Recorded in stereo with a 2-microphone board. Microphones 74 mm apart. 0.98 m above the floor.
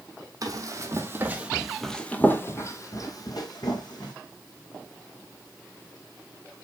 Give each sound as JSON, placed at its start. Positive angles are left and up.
{"t": 0.4, "sound": "running footsteps", "side_deg": -50, "distance_m": 1.6}